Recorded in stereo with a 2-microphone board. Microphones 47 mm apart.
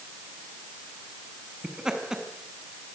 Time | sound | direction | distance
1.6 | laughter | 10° right (ahead or behind) | 6 m